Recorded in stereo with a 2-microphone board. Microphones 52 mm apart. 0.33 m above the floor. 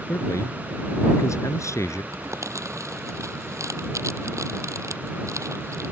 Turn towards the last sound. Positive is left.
turn(degrees=-80)